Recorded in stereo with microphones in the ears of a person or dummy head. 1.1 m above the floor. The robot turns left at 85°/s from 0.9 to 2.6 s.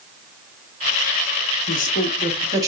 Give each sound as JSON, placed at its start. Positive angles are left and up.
{"t": 1.7, "sound": "a woman speaking", "side_deg": 55, "distance_m": 1.1}